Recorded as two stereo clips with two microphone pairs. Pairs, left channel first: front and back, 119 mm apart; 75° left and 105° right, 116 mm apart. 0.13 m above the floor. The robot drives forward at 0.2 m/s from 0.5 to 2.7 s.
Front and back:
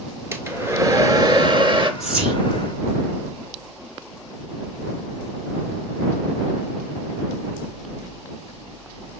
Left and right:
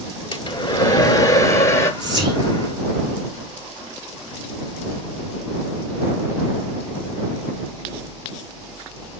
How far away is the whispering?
About 2 m.